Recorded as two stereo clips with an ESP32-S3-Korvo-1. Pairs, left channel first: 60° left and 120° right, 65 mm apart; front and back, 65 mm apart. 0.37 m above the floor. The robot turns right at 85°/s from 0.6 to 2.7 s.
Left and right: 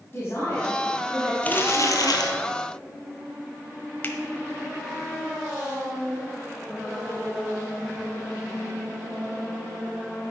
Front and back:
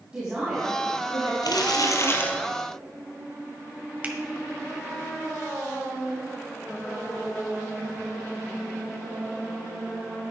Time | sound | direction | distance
0.1 | a man speaking | 105° left | 3 m
1.4 | crumpling | 10° right | 1.4 m
4.0 | a finger snap | 115° left | 1.3 m